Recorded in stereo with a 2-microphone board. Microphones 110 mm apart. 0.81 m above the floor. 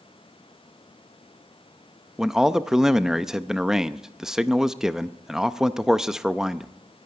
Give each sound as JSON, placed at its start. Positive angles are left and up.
{"t": 2.2, "sound": "a man speaking", "side_deg": -5, "distance_m": 0.5}